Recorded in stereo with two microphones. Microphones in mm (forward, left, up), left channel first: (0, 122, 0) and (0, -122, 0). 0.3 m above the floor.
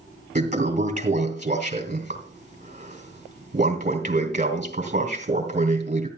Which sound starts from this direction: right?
A toilet flushing, at 0.3 s.